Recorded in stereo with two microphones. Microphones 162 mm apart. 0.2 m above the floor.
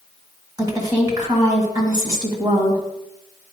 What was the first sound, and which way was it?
A woman speaking, 25° right (ahead or behind).